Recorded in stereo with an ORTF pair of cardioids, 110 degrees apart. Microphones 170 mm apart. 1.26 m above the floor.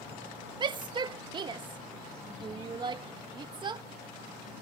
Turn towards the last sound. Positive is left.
turn(degrees=-25)